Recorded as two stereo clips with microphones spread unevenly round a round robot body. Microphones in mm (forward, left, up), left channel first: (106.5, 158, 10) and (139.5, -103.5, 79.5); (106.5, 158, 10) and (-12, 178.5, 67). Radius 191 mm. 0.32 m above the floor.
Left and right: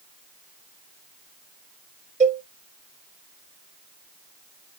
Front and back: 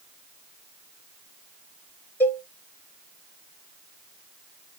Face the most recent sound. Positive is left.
turn(degrees=-15)